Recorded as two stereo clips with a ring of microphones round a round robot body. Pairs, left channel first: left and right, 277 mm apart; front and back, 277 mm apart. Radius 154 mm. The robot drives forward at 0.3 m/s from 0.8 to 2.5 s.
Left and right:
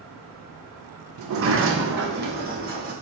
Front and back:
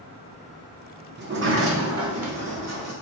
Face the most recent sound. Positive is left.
turn(degrees=-150)